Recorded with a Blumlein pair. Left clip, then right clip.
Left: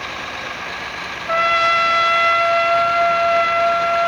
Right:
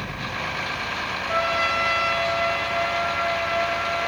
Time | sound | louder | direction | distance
1.3 | a trumpet | left 8 dB | 55° left | 1.4 m